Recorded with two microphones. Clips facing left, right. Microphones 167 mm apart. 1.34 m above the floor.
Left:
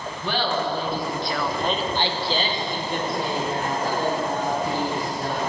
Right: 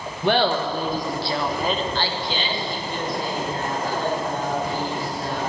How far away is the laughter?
About 1.6 m.